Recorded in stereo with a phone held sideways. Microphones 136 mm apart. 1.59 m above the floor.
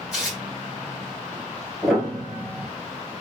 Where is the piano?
Centre (ahead or behind), 1.5 m.